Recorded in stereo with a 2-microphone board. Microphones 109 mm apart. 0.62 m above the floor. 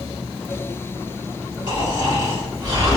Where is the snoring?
40° right (ahead or behind), 1.3 m.